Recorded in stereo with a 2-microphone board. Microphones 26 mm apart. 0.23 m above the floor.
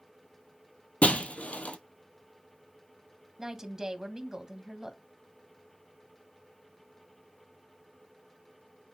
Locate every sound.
1.0 s breaking glass: 65° left (ahead or behind), 0.8 m
3.4 s a woman speaking: 25° right (ahead or behind), 1.3 m